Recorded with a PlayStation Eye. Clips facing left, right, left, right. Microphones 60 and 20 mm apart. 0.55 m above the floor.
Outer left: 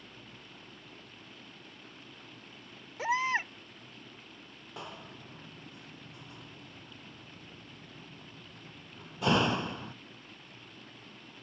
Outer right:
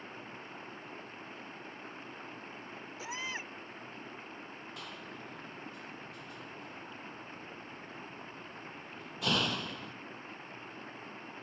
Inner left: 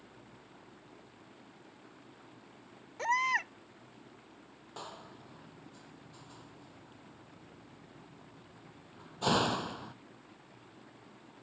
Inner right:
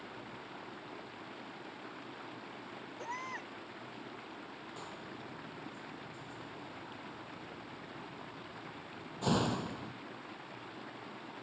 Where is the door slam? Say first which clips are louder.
Outer left 5 dB, inner left 3 dB; 25° left (ahead or behind).